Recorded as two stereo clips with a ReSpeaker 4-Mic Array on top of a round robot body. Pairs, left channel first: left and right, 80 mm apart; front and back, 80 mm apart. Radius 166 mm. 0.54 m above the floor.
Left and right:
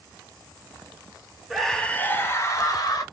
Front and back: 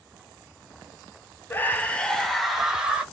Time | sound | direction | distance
1.5 | a scream | straight ahead | 1.2 m